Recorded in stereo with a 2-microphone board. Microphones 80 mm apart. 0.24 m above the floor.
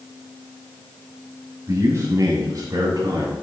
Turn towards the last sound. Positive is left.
turn(degrees=-50)  # may be behind; listen again after turning